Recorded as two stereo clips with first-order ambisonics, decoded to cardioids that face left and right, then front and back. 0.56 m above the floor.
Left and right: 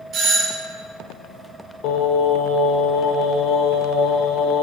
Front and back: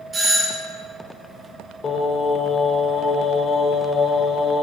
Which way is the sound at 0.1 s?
120° right.